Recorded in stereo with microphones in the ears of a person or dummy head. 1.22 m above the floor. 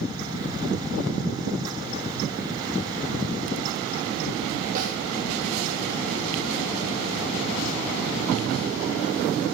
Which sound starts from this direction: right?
A snare drum, at 4.8 s.